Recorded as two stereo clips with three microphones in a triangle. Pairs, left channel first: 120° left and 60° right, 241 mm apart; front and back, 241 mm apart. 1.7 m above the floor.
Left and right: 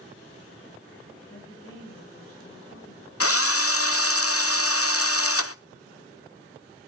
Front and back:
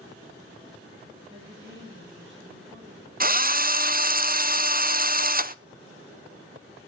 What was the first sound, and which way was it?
A woman speaking, 140° left.